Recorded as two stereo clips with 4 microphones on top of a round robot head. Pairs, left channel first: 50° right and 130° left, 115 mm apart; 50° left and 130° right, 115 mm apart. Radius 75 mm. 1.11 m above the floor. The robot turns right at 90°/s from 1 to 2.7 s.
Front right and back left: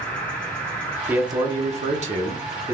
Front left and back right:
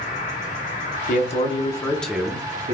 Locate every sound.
0.0 s an insect: 30° left, 2 m; by 2.8 s straight behind, 2 m
1.1 s a man speaking: 50° left, 1.0 m; by 2.8 s 165° right, 1.0 m